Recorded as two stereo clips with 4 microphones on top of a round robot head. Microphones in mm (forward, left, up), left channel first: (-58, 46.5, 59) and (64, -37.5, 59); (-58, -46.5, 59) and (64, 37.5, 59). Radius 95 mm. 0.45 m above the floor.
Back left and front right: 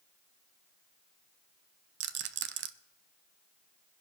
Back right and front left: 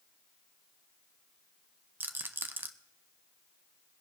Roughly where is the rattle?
Ahead right.